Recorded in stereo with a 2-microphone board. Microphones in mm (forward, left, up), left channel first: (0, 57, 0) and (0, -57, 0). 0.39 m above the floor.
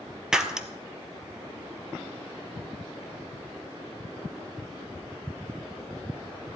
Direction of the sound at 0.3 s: 5° right (ahead or behind).